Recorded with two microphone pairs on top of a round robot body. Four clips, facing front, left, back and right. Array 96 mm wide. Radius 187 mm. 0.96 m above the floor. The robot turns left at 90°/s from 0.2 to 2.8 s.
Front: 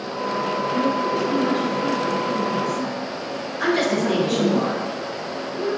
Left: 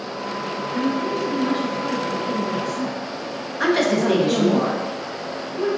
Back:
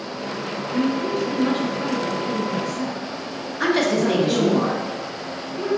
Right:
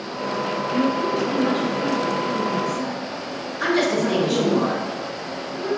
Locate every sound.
0.7 s a woman speaking: 80° right, 1.0 m; by 4.6 s 95° left, 1.0 m
3.6 s a woman speaking: 115° left, 1.2 m